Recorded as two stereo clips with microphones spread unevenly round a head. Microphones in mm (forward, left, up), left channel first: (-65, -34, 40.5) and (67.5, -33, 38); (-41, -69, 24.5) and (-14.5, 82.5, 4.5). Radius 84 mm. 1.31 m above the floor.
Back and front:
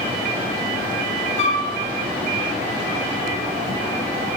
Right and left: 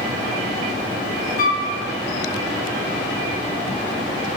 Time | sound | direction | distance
1.4 | a flute | 140° right | 0.8 m